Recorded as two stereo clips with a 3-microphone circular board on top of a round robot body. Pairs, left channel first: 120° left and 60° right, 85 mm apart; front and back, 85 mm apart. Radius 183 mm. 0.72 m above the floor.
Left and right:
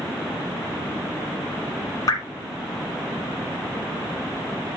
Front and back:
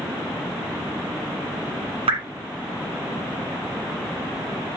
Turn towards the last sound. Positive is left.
turn(degrees=175)